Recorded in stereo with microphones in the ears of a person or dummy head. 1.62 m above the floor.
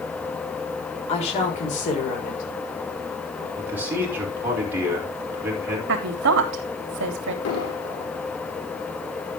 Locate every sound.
1.1 s a woman speaking: 30° left (ahead or behind), 4 m; by 3.5 s 55° left (ahead or behind), 6 m
3.6 s a man speaking: 10° right (ahead or behind), 5.5 m
5.9 s a woman speaking: 65° right (ahead or behind), 3 m
7.5 s an explosion: 80° left, 3.5 m